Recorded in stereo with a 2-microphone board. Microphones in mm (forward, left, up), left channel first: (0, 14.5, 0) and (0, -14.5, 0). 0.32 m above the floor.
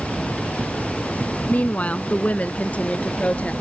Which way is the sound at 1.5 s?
60° left (ahead or behind).